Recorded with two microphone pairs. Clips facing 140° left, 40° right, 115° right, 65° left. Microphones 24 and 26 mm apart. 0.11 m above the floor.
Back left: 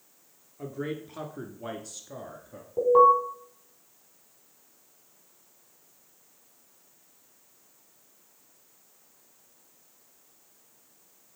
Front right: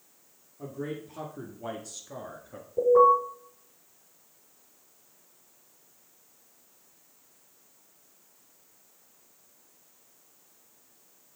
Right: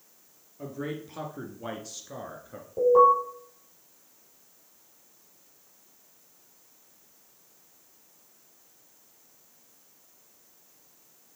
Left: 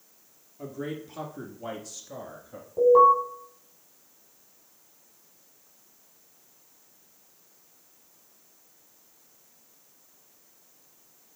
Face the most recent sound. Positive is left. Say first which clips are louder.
# back left 1 dB, left 2 dB
turn(degrees=150)